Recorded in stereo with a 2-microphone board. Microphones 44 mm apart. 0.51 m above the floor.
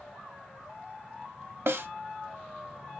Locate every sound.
1.7 s a snare drum: 65° right (ahead or behind), 0.5 m